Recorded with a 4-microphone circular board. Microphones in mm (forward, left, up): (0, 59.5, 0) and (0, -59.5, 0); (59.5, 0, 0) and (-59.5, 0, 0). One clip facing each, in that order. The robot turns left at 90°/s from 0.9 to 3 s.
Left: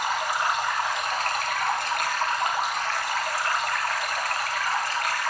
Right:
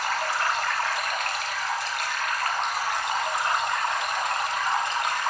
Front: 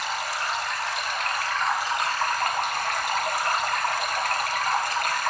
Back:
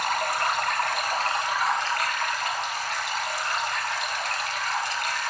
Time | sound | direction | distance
0.0 | running water | 160° left | 0.8 m